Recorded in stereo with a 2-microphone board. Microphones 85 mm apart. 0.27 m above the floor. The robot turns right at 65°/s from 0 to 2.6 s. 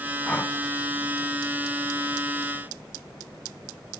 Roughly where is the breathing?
Centre.